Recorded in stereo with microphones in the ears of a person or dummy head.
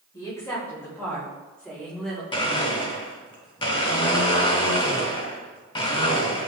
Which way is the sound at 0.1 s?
15° left (ahead or behind).